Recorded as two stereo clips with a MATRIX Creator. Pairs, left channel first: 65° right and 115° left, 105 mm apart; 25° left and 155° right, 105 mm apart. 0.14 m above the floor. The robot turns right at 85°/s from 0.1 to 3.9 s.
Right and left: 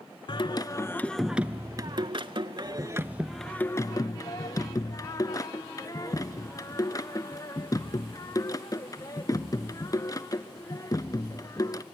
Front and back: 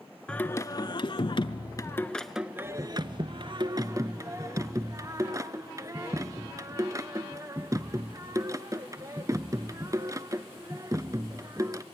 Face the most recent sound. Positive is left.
turn(degrees=-110)